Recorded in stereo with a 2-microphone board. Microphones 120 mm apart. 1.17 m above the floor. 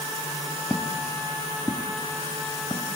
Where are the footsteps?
5° left (ahead or behind), 1.2 m; by 2.9 s 25° left (ahead or behind), 3 m.